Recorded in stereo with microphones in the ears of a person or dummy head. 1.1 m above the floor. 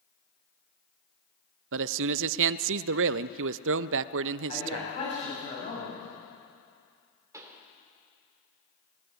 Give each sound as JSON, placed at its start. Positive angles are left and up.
{"t": 1.7, "sound": "a man speaking", "side_deg": -70, "distance_m": 0.6}
{"t": 4.5, "sound": "a man speaking", "side_deg": 35, "distance_m": 8.5}
{"t": 7.3, "sound": "a pop", "side_deg": -15, "distance_m": 2.5}